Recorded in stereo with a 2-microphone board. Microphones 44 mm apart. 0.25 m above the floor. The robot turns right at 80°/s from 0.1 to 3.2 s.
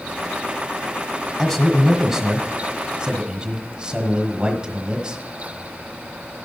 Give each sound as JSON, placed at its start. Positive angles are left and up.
{"t": 1.4, "sound": "a man speaking", "side_deg": 10, "distance_m": 1.2}